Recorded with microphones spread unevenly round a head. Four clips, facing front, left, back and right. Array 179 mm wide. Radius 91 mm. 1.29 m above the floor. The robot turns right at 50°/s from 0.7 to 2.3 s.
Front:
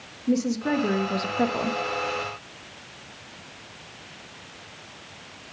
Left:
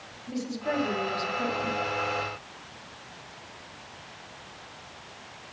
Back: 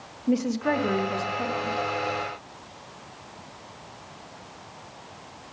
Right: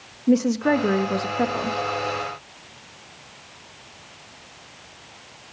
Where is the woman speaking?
85° right, 1.7 m; by 1.8 s 30° right, 1.7 m.